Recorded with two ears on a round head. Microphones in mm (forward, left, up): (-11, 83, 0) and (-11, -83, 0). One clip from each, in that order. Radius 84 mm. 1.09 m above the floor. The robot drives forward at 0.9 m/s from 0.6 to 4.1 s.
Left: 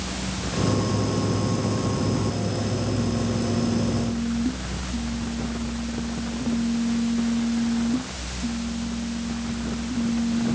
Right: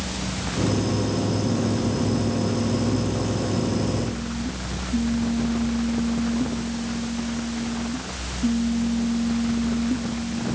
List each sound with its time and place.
Only background noise.